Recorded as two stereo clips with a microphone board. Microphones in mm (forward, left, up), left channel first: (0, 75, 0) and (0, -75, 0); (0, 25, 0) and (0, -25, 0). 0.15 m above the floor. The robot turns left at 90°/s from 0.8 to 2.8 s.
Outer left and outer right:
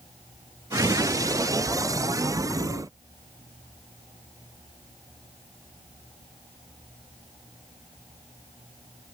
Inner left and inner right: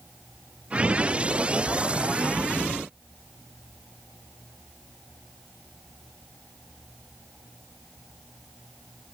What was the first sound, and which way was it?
Only background noise.